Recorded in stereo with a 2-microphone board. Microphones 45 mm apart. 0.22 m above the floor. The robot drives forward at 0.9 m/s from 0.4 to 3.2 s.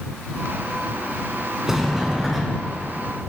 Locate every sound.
1.7 s a sliding door: 10° right (ahead or behind), 1.1 m; by 2.8 s 5° right (ahead or behind), 2.0 m